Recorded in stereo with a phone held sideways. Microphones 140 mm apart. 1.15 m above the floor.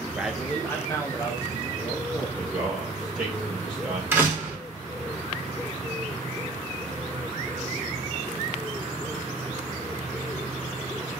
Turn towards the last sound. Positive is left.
turn(degrees=-15)  # may be behind; listen again after turning